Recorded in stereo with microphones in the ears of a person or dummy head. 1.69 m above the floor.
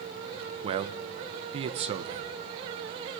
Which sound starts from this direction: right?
A man speaking, at 0.6 s.